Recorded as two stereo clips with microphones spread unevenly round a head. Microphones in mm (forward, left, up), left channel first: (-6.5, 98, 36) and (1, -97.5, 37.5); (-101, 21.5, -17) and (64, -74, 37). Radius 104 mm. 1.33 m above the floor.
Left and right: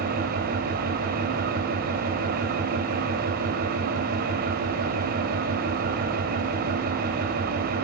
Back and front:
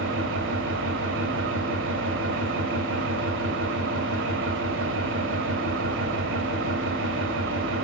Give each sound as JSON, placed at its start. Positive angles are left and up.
{"t": 0.0, "sound": "an engine running", "azimuth_deg": -40, "distance_m": 3.5}